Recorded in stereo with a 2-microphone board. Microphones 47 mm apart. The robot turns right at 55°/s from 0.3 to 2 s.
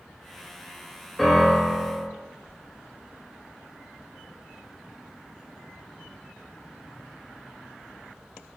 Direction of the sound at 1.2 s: 10° left.